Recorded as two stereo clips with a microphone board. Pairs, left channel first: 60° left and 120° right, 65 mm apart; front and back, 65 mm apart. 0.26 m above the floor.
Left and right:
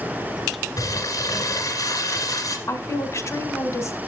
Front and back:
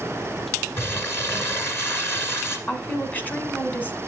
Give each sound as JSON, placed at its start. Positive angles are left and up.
{"t": 0.8, "sound": "crumpling", "azimuth_deg": 50, "distance_m": 2.0}
{"t": 2.7, "sound": "a woman speaking", "azimuth_deg": 55, "distance_m": 1.4}